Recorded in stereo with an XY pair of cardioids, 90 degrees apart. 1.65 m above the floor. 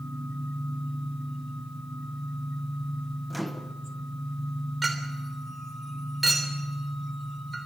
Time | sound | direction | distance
3.3 | a microwave | straight ahead | 1.5 m
4.8 | a clink | 25° right | 3.5 m